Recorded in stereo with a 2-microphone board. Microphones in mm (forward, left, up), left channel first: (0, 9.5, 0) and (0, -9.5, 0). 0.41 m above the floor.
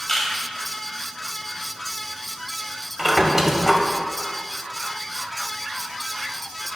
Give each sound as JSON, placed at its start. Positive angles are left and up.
{"t": 0.1, "sound": "a camera shutter", "side_deg": 35, "distance_m": 1.1}
{"t": 3.0, "sound": "a squeak", "side_deg": -15, "distance_m": 0.7}